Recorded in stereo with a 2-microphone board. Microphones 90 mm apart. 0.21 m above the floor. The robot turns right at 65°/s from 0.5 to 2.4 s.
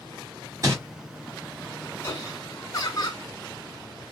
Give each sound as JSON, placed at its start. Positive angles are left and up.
{"t": 0.6, "sound": "crumpling", "side_deg": -40, "distance_m": 2.5}
{"t": 2.0, "sound": "laughter", "side_deg": 30, "distance_m": 2.5}